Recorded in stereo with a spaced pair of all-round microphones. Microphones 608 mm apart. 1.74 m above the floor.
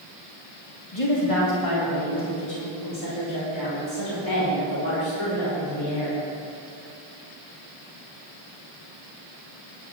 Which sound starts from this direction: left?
A woman speaking, at 0.9 s.